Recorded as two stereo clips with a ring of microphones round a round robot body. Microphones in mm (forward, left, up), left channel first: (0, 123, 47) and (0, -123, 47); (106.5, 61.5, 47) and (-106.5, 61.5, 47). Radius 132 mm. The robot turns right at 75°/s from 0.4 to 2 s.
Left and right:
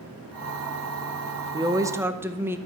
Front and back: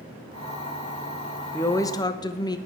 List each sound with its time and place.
1.5 s a woman speaking: 60° right, 0.6 m; by 2.6 s 25° right, 0.6 m